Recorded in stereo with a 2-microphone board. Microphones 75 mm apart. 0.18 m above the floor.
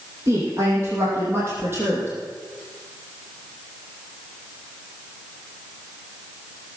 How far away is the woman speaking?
About 6.5 m.